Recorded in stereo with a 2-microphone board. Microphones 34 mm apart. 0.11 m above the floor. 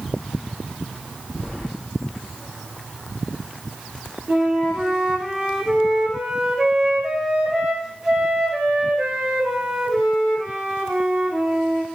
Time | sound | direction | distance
1.4 | keys jangling | 20° left (ahead or behind) | 5.5 m
4.3 | a flute | 10° right (ahead or behind) | 2.5 m